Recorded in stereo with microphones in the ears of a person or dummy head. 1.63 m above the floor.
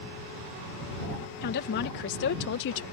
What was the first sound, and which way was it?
A woman speaking, 55° left (ahead or behind).